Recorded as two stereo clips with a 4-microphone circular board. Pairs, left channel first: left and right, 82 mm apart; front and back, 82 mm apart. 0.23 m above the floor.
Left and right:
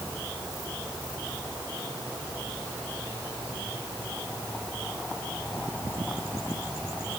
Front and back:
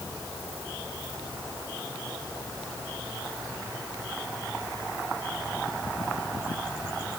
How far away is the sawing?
I don't hear sawing.